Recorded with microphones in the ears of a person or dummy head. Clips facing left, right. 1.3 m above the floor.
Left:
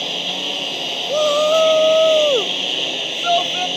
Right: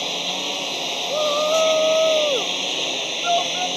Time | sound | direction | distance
0.0 | a lawn mower | 15° left (ahead or behind) | ?
1.1 | a shout | 55° left (ahead or behind) | ?